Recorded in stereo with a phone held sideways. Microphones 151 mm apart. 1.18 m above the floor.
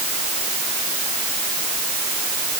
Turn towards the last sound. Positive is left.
No sound to turn to.